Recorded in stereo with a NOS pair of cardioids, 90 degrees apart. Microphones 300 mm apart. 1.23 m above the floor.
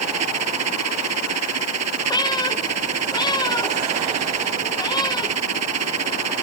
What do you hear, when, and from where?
0.0 s a machine running: 60° right
2.1 s a cat meowing: 15° left